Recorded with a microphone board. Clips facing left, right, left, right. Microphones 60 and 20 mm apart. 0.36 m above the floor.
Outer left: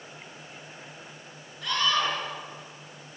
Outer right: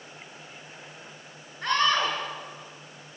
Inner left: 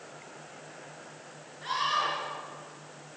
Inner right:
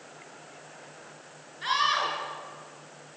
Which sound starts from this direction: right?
A scream, at 1.6 s.